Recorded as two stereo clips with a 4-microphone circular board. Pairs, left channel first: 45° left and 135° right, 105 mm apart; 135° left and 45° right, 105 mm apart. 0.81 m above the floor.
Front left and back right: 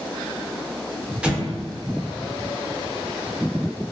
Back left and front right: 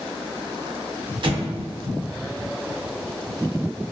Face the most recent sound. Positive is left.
turn(degrees=-60)